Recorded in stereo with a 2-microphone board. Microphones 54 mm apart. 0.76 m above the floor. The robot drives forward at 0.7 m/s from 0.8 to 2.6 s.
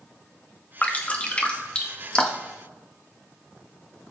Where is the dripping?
30° left (ahead or behind), 1.1 m; by 2.6 s 15° left (ahead or behind), 2 m.